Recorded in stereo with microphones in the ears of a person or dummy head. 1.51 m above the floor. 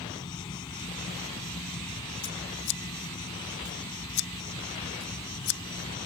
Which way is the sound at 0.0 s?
25° left (ahead or behind).